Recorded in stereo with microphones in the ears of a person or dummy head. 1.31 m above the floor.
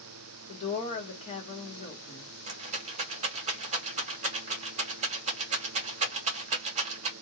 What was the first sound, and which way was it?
A woman speaking, 30° left (ahead or behind).